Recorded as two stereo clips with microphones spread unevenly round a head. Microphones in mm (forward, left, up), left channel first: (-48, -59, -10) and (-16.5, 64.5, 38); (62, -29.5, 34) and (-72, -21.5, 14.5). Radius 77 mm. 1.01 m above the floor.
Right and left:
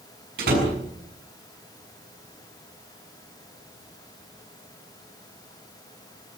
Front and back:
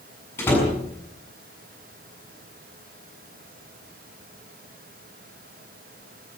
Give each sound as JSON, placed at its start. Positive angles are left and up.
{"t": 0.4, "sound": "a door slam", "azimuth_deg": 70, "distance_m": 7.5}